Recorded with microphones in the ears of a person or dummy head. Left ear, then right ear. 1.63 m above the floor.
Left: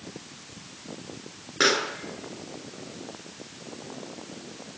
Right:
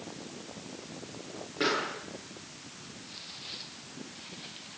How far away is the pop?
About 7.5 m.